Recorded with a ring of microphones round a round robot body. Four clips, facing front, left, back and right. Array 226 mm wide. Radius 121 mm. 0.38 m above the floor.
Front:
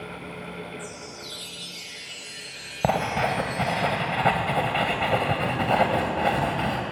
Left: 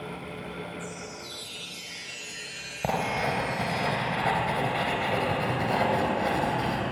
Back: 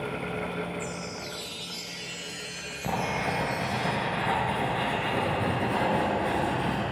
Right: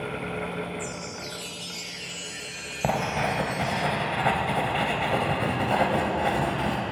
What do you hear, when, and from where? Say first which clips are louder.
0.8 s a chime: right 4 dB, back 3 dB; 55° right, 5.5 m
2.8 s writing: right 2 dB, front 6 dB; 15° right, 3 m